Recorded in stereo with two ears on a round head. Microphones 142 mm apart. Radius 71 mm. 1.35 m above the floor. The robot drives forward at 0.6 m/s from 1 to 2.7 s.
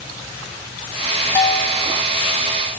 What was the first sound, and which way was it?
A bell, 15° left (ahead or behind).